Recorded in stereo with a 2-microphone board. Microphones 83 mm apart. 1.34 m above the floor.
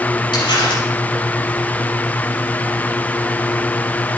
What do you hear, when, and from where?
0.3 s crumpling: 85° left, 5.5 m